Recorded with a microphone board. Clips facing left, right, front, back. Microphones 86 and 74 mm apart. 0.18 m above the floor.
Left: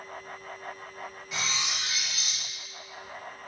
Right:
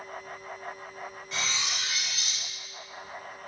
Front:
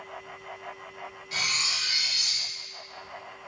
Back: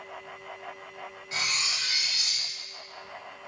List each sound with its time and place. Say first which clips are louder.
1.3 s cutlery clinking: even, even; 170° left, 0.7 m